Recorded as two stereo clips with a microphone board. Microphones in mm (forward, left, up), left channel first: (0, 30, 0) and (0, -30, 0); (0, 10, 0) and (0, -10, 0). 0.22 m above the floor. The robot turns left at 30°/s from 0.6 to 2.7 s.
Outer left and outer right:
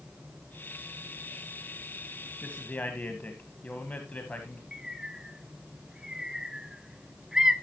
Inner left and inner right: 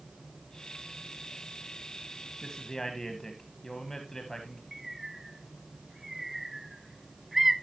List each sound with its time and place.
2.4 s a man speaking: 20° left (ahead or behind), 1.3 m; by 4.6 s 25° left (ahead or behind), 1.3 m
4.7 s a bird: 10° right (ahead or behind), 0.6 m